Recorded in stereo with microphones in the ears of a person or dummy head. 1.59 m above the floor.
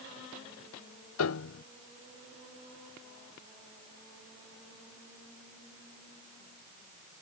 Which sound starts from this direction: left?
A piano, at 1.2 s.